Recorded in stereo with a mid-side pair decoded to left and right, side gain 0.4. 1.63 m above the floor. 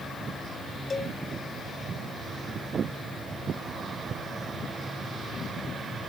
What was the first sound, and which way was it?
A cowbell, 40° left.